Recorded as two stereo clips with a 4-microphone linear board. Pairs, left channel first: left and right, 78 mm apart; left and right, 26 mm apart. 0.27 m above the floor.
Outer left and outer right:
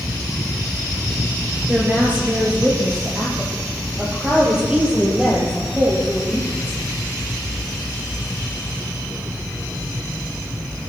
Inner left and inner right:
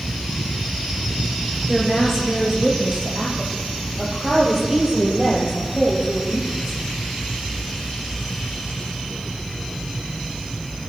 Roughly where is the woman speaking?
Right.